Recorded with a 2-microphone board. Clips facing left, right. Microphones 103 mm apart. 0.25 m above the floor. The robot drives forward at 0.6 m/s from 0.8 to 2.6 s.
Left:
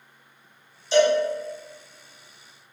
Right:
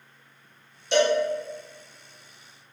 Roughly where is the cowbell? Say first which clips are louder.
Left 3 dB; right.